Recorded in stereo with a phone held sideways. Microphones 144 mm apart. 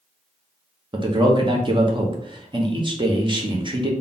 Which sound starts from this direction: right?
A man speaking, at 0.9 s.